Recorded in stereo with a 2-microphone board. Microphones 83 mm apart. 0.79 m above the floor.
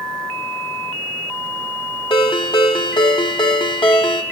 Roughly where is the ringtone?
Left.